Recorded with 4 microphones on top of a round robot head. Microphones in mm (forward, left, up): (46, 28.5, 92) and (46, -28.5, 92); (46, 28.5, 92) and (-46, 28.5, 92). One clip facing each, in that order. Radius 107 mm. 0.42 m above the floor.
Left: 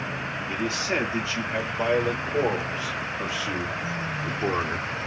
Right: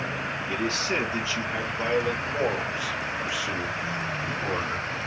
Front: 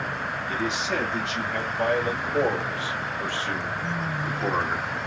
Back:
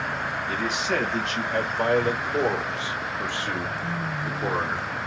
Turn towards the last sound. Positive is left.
turn(degrees=75)